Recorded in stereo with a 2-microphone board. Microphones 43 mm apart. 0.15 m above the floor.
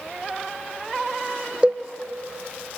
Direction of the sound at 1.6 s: 25° right (ahead or behind).